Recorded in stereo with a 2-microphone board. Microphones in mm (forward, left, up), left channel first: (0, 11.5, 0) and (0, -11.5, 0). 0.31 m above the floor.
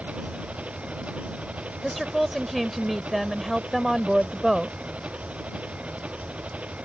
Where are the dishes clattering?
I don't hear dishes clattering.